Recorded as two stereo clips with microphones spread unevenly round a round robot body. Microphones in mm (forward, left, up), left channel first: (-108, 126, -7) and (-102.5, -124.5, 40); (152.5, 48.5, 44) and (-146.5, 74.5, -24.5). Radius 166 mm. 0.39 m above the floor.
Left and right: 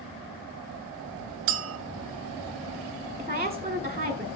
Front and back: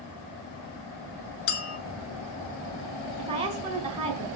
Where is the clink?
55° right, 0.8 m.